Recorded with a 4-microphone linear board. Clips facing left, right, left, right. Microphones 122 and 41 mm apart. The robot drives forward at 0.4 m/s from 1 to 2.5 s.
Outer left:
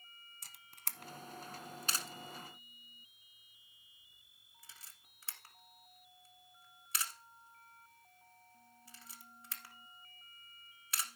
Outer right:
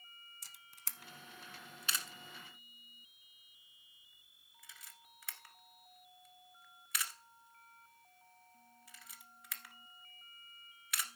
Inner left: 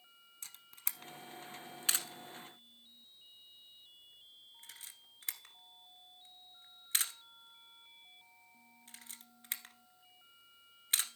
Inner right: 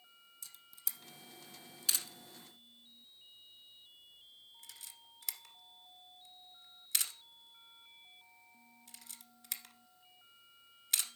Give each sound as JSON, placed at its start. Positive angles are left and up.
{"t": 0.4, "sound": "a camera shutter", "side_deg": 60, "distance_m": 0.8}